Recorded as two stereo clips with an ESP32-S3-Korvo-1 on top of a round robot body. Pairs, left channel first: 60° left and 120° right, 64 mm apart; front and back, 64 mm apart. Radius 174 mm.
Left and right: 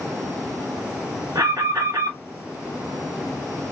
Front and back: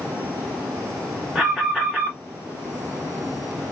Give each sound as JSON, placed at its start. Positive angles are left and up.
{"t": 1.4, "sound": "an alarm", "azimuth_deg": -100, "distance_m": 1.8}